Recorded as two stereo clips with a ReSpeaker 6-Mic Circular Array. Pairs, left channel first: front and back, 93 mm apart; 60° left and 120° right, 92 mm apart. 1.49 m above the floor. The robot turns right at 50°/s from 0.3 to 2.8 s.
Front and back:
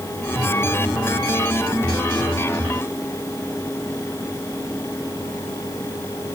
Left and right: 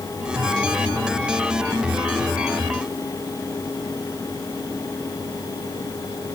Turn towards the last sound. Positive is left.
No sound to turn to.